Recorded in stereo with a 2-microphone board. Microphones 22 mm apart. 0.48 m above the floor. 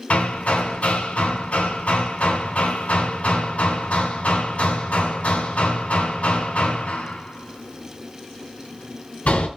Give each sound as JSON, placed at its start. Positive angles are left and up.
{"t": 0.1, "sound": "hammering", "side_deg": 75, "distance_m": 3.0}